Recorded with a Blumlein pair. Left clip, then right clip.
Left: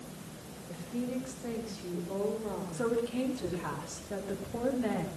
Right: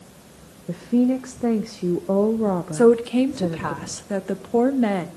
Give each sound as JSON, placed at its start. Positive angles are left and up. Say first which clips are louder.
{"t": 0.7, "sound": "a woman speaking", "louder": "right 16 dB", "azimuth_deg": -45, "distance_m": 1.1}
{"t": 2.7, "sound": "a woman speaking", "louder": "right 15 dB", "azimuth_deg": -60, "distance_m": 1.8}